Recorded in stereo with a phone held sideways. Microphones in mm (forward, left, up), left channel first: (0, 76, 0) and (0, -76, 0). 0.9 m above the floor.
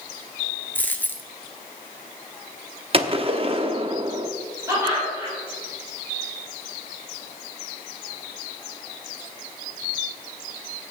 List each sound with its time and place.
0.8 s a dropped coin: 10° left (ahead or behind), 1.0 m
2.9 s a gunshot: 40° right (ahead or behind), 0.8 m
4.7 s laughter: 20° right (ahead or behind), 3.5 m